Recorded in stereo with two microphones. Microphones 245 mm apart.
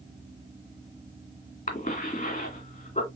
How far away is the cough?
About 2 m.